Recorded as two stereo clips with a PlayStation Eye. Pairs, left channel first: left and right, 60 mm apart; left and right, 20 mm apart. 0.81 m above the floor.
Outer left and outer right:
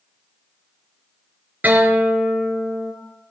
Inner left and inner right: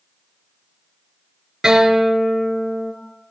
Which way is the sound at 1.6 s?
30° right (ahead or behind).